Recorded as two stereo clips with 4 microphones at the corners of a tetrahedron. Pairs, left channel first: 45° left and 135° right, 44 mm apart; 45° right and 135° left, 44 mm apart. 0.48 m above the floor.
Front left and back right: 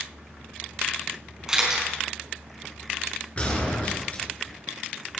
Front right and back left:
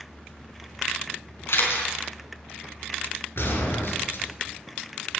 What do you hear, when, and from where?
1.5 s a camera shutter: 60° right, 4 m
3.4 s a gunshot: 15° right, 3 m